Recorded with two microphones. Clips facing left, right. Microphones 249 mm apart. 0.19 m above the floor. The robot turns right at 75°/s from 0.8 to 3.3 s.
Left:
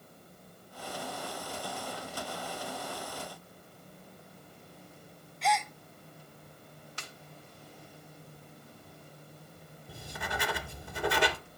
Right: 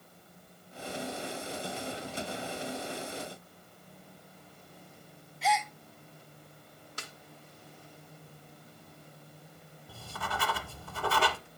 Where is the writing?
15° left (ahead or behind), 0.7 m.